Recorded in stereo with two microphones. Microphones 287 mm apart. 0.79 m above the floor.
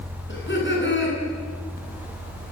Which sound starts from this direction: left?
Laughter, at 0.3 s.